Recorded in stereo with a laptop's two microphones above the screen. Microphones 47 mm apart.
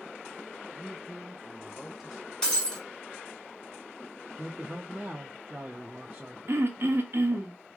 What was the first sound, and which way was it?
A man speaking, 5° right (ahead or behind).